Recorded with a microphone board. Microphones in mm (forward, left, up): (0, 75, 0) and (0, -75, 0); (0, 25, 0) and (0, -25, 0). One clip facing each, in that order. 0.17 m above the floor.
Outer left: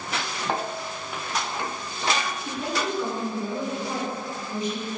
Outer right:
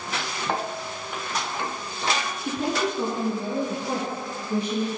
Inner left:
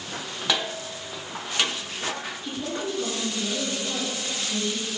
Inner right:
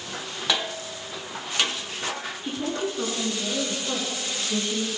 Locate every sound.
2.4 s a woman speaking: 30° right (ahead or behind), 2 m; by 4.9 s 60° right (ahead or behind), 4 m